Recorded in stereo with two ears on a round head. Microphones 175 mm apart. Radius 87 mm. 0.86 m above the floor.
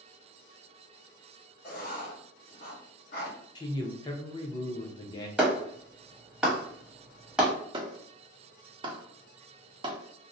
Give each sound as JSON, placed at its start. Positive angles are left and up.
{"t": 1.6, "sound": "writing", "side_deg": 45, "distance_m": 1.3}
{"t": 3.5, "sound": "a man speaking", "side_deg": 20, "distance_m": 0.5}
{"t": 5.4, "sound": "a clap", "side_deg": -5, "distance_m": 0.8}
{"t": 7.7, "sound": "a clap", "side_deg": -25, "distance_m": 0.6}